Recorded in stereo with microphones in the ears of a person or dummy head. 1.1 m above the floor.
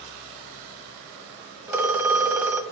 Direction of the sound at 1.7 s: 15° right (ahead or behind).